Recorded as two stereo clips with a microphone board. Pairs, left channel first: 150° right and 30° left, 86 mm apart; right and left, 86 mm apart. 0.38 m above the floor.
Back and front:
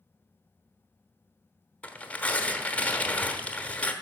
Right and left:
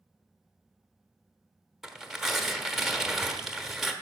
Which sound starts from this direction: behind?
Tearing paper, at 1.8 s.